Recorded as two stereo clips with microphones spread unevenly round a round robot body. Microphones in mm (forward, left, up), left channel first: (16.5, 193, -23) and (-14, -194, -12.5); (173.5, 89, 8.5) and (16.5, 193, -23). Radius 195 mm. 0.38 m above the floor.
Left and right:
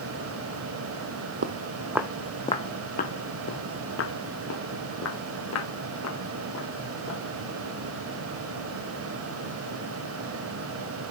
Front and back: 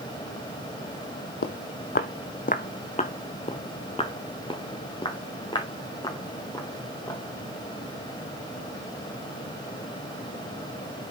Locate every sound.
1.4 s footsteps: 35° right, 0.7 m; by 7.2 s 35° left, 4 m